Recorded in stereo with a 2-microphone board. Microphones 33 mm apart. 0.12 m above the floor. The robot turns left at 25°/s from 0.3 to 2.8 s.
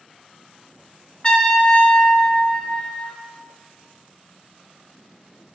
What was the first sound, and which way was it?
A trumpet, 25° left (ahead or behind).